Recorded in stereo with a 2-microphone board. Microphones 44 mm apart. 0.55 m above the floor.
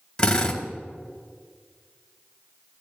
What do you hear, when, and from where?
0.2 s a drill: 15° left (ahead or behind), 2 m